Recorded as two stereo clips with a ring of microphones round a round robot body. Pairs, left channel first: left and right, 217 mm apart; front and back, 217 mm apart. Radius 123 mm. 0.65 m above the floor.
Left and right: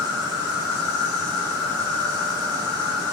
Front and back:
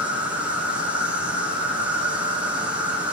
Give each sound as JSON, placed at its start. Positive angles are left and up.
{"t": 0.0, "sound": "an insect", "azimuth_deg": 95, "distance_m": 1.1}